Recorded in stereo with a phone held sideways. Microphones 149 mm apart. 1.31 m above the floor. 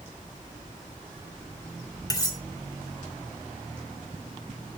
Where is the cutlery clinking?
25° left (ahead or behind), 1.4 m.